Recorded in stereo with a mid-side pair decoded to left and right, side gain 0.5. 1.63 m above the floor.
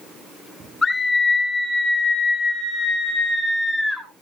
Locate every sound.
0.8 s a scream: 25° left, 5.5 m; by 4.1 s 10° left, 7 m